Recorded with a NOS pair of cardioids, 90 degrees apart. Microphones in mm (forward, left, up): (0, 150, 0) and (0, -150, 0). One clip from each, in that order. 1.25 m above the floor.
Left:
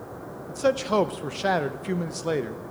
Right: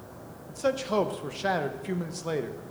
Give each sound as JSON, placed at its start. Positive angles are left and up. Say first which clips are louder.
{"t": 0.5, "sound": "a man speaking", "louder": "left 4 dB", "azimuth_deg": 20, "distance_m": 0.7}